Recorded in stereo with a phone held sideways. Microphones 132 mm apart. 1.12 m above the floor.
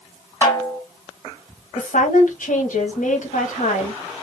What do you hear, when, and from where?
0.4 s a snare drum: 20° left (ahead or behind), 2 m
1.8 s a woman speaking: 80° left, 1.3 m